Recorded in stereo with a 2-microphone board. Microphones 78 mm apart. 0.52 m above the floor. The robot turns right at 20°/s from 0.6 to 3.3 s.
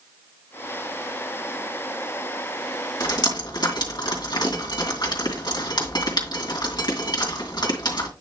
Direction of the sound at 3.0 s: 65° left (ahead or behind).